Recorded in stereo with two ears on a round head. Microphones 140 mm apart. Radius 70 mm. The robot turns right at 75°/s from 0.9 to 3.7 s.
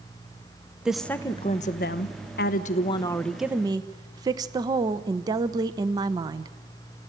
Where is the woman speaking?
5° right, 1.0 m; by 6.5 s 155° right, 1.0 m.